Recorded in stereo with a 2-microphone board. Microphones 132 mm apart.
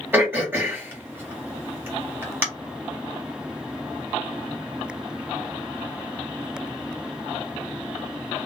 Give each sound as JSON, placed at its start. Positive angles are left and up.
{"t": 0.1, "sound": "throat clearing", "side_deg": -15, "distance_m": 1.9}